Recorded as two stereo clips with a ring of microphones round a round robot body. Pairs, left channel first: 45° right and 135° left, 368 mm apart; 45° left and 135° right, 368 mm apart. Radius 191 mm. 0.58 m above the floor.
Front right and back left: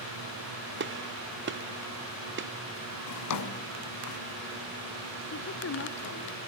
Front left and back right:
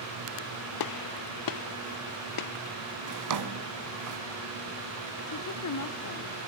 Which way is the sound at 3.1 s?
90° right.